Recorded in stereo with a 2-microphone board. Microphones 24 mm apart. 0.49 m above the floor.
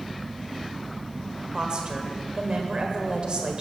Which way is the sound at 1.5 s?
35° right (ahead or behind).